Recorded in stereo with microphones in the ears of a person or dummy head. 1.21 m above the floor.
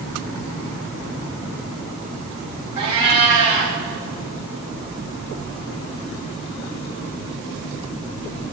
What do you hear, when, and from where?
2.8 s a cat meowing: 25° right (ahead or behind), 1.6 m